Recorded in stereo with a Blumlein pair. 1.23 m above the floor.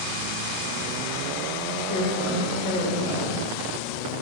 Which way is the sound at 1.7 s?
40° left.